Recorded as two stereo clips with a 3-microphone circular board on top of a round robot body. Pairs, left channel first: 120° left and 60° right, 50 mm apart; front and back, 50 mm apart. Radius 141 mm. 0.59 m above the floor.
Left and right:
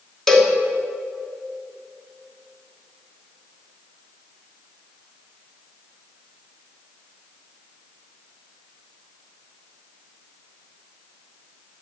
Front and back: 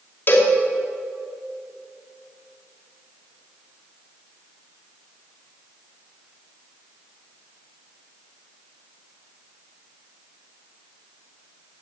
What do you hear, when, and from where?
0.3 s a cowbell: 40° left, 2.5 m